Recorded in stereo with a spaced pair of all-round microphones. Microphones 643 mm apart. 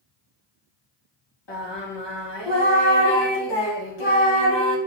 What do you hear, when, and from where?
1.5 s singing: 40° left (ahead or behind), 1.1 m